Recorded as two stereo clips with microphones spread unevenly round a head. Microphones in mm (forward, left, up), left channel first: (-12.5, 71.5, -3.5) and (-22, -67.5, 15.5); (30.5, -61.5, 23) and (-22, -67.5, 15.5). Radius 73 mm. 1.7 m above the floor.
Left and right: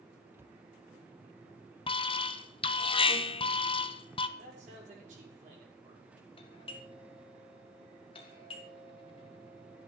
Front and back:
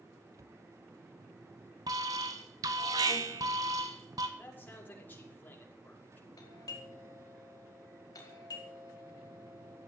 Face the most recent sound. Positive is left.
turn(degrees=30)